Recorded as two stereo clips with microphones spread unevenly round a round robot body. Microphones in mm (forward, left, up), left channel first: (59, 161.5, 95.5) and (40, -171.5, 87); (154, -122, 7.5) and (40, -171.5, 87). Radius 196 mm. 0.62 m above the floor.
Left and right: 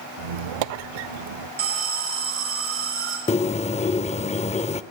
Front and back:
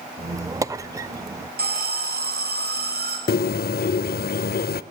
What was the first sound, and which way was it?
A squeak, 105° right.